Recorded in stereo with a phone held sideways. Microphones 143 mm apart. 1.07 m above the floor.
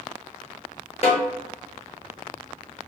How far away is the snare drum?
About 0.9 m.